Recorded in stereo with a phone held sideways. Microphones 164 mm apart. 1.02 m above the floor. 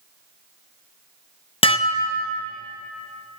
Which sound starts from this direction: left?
Dishes clattering, at 1.6 s.